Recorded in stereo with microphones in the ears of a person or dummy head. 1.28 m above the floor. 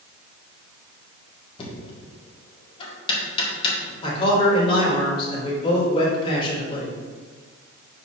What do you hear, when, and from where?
1.6 s knocking: 35° left (ahead or behind), 1.9 m
4.0 s a man speaking: 35° left (ahead or behind), 2.5 m